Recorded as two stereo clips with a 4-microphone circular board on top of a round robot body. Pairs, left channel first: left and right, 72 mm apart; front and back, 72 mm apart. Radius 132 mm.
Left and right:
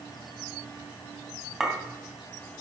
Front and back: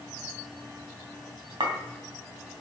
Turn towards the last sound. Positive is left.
turn(degrees=-175)